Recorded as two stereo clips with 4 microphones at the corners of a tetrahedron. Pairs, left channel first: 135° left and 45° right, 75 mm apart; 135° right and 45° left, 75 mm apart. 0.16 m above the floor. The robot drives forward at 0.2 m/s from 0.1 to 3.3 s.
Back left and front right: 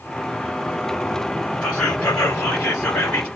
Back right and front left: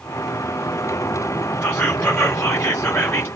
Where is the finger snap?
No finger snap in this recording.